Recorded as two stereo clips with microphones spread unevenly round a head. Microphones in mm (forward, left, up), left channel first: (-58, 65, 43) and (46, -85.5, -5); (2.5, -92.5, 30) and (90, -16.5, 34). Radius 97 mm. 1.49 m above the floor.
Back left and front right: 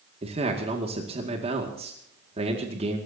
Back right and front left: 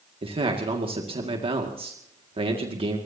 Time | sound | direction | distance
0.2 | a man speaking | 5° left | 2 m